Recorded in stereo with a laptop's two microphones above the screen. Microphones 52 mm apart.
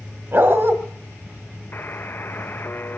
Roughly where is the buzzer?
Left.